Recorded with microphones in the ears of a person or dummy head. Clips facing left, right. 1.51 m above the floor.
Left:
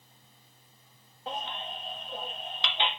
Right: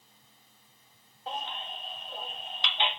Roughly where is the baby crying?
Left.